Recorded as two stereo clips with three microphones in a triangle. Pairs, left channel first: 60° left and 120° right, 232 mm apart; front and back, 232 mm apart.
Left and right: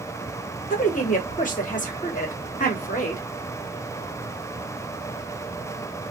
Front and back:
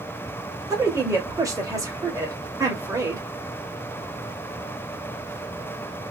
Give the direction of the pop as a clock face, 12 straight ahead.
No pop in this recording.